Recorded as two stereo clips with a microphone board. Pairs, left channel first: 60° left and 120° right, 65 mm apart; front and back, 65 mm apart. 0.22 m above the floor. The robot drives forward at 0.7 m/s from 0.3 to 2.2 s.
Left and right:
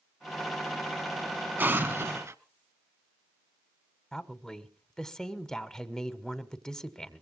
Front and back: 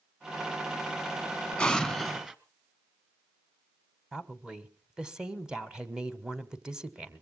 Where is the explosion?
70° right, 1.1 m; by 2.4 s 100° right, 1.0 m.